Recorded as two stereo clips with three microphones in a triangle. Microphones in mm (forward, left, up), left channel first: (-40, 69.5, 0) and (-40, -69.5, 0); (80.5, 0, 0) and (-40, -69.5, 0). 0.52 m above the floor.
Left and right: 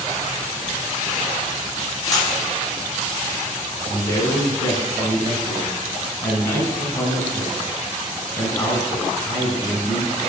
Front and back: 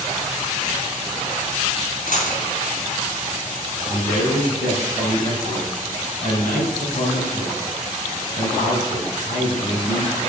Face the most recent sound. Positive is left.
turn(degrees=25)